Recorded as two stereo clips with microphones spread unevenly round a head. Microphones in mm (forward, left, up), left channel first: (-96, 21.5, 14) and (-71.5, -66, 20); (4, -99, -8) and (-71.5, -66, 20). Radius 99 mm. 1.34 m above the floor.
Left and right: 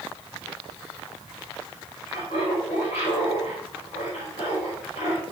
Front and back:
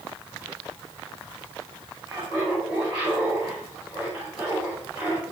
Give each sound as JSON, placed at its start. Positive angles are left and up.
{"t": 2.1, "sound": "laughter", "azimuth_deg": 50, "distance_m": 7.0}